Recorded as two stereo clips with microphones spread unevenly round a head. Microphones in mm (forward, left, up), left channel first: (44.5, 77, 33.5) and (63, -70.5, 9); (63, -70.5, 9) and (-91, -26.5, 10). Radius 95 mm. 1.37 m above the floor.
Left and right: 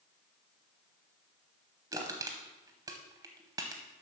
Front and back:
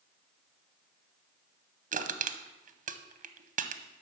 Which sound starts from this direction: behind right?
Crushing, at 1.9 s.